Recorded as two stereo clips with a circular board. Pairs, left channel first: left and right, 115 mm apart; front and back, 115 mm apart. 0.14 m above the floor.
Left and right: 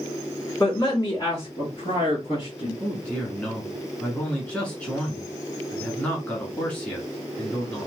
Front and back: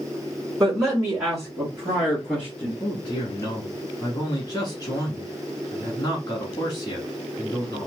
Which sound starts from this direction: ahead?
A man speaking, at 2.8 s.